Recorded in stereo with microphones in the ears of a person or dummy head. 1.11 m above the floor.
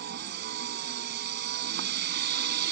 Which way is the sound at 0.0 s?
65° right (ahead or behind).